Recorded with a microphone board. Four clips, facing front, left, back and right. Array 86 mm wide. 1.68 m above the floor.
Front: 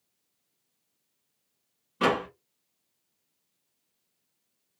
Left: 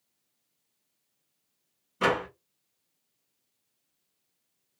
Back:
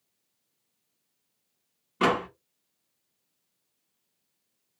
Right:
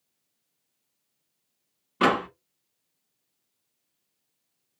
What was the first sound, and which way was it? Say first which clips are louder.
A door slam: right 4 dB, back 1 dB; 100° right.